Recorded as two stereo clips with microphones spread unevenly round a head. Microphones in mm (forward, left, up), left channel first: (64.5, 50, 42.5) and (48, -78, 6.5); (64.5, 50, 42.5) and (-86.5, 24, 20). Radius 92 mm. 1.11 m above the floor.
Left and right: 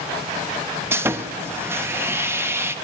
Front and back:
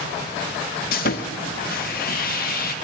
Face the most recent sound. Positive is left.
turn(degrees=-30)